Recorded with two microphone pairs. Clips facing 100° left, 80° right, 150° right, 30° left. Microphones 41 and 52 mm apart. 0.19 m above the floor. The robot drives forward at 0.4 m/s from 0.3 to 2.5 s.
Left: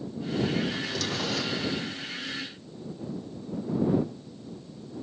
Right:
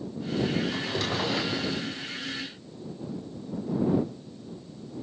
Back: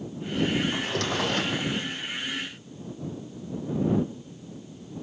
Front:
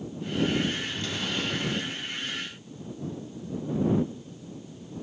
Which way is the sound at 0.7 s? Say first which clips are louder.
Right 2 dB, back 5 dB; 145° right.